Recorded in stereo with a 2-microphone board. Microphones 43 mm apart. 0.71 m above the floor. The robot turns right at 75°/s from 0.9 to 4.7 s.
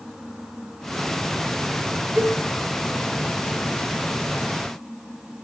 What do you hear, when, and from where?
2.2 s a cowbell: 55° right (ahead or behind), 1.1 m; by 2.4 s 40° right (ahead or behind), 1.1 m